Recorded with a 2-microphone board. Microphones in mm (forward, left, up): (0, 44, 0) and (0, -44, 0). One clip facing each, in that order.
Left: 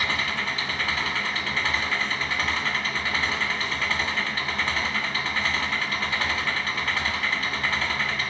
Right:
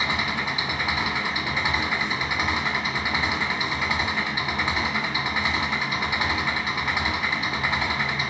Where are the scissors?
No scissors in this recording.